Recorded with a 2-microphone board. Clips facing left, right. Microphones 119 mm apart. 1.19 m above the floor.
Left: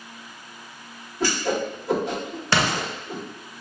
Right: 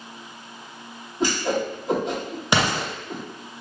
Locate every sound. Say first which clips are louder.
1.2 s a whoosh: right 1 dB; 20° right (ahead or behind), 1.8 m
2.5 s an explosion: right 1 dB; 15° right (ahead or behind), 0.9 m